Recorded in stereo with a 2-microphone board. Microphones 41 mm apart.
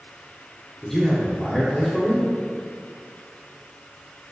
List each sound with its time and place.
0.8 s a man speaking: 10° left (ahead or behind), 1.2 m